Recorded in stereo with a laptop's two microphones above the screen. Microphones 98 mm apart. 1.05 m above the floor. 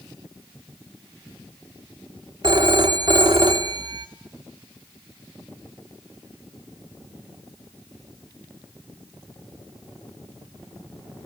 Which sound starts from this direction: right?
A phone ringing, at 2.4 s.